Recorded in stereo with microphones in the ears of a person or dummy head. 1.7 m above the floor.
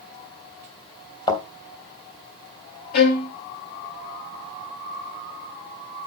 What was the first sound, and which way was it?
A thud, 25° left (ahead or behind).